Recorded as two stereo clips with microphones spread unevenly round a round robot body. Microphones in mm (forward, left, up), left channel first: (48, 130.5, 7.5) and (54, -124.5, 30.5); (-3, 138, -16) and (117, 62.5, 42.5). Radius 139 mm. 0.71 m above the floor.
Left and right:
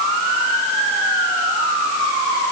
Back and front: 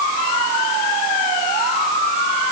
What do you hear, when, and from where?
Only background noise.